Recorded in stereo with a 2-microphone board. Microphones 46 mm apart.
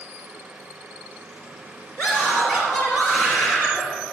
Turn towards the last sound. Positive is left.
turn(degrees=40)  # may be behind; listen again after turning